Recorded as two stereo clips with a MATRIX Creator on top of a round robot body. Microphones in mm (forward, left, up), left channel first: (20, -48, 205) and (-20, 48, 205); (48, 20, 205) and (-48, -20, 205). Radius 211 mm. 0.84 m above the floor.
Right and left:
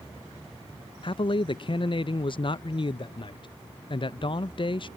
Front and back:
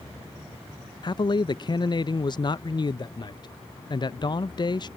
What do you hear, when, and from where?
1.0 s a man speaking: 25° right